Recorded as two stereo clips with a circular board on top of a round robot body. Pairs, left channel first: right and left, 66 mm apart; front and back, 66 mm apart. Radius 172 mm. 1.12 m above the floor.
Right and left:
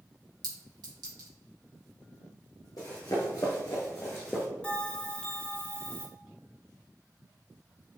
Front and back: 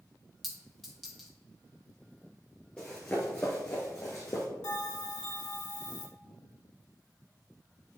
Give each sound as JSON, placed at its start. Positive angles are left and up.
{"t": 0.4, "sound": "a clink", "azimuth_deg": 85, "distance_m": 2.5}
{"t": 2.8, "sound": "running footsteps", "azimuth_deg": -75, "distance_m": 1.4}
{"t": 4.6, "sound": "a bell", "azimuth_deg": -15, "distance_m": 1.9}